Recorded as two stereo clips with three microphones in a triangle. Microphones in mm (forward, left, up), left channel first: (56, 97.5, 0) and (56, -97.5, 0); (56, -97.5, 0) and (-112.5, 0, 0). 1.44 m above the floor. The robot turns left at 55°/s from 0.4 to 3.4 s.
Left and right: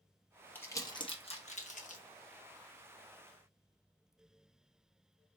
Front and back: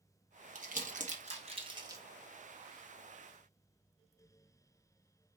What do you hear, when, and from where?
0.6 s crumpling: 165° left, 0.8 m; by 2.0 s 85° left, 0.8 m